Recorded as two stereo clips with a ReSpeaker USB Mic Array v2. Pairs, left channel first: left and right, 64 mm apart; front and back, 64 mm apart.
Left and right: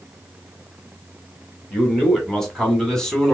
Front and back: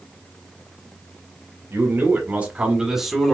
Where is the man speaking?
170° left, 1.9 m; by 3.3 s 60° left, 1.4 m.